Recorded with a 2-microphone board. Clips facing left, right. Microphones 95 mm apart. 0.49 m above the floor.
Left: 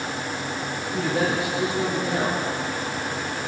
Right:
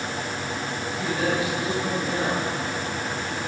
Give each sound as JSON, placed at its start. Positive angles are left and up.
{"t": 0.9, "sound": "a man speaking", "side_deg": 70, "distance_m": 9.5}